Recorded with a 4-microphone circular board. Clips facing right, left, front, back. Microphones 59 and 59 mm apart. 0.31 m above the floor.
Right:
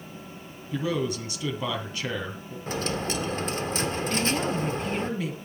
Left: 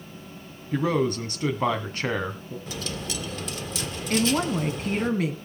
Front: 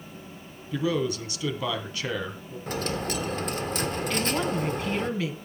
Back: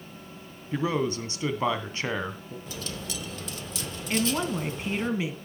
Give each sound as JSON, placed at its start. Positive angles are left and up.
{"t": 0.7, "sound": "a man speaking", "azimuth_deg": 130, "distance_m": 2.5}
{"t": 2.7, "sound": "a dropped coin", "azimuth_deg": -40, "distance_m": 1.1}
{"t": 4.1, "sound": "a woman speaking", "azimuth_deg": 110, "distance_m": 2.5}